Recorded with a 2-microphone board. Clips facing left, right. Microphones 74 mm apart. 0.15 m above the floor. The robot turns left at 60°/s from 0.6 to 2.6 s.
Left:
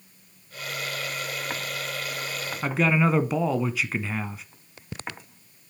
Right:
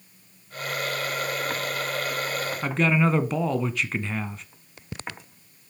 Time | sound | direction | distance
2.6 | a man speaking | 5° left (ahead or behind) | 1.1 m